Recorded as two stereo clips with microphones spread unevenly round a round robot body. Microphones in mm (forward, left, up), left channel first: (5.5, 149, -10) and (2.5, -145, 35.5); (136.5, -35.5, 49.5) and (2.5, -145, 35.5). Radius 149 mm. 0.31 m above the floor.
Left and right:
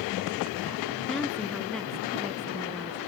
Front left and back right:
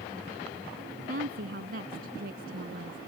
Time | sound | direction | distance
1.1 | a woman speaking | 175° left | ?